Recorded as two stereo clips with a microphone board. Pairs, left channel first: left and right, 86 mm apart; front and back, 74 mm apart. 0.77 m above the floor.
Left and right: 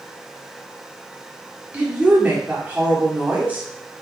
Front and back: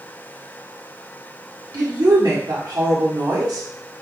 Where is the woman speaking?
160° right, 1.7 m.